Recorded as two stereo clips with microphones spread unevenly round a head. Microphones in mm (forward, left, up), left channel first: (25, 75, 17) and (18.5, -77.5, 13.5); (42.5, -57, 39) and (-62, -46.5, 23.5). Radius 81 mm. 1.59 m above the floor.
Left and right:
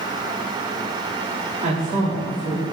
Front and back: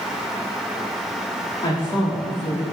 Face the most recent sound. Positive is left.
turn(degrees=-50)